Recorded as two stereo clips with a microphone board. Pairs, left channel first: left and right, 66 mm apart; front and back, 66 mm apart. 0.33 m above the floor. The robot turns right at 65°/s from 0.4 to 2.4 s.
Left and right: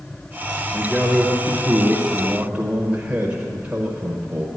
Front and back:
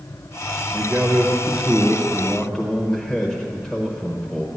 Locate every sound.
0.7 s a man speaking: 175° right, 1.0 m; by 4.5 s 65° right, 1.0 m